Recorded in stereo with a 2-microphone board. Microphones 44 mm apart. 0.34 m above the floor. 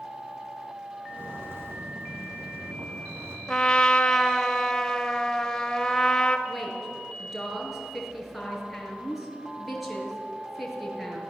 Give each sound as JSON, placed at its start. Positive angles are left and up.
{"t": 1.1, "sound": "footsteps", "side_deg": -50, "distance_m": 3.5}
{"t": 3.5, "sound": "a trumpet", "side_deg": 15, "distance_m": 1.5}
{"t": 6.5, "sound": "a woman speaking", "side_deg": 0, "distance_m": 5.5}